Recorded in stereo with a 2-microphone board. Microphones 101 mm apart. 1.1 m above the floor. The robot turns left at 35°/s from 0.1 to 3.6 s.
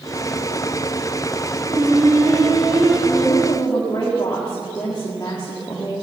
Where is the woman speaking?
60° left (ahead or behind), 1.8 m; by 5.9 s 40° left (ahead or behind), 1.8 m.